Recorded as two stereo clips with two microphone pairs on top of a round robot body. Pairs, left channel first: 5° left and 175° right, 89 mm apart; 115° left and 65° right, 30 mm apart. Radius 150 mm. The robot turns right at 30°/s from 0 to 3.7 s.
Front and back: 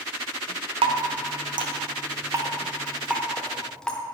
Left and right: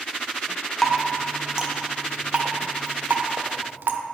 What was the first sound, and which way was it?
Dripping, 165° right.